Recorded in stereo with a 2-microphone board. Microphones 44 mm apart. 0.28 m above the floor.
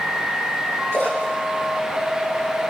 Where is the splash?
70° left (ahead or behind), 9 m.